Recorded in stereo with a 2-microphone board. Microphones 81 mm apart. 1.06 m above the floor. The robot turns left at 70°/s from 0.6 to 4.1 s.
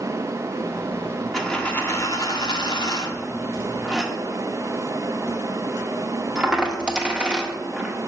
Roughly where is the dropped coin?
Centre.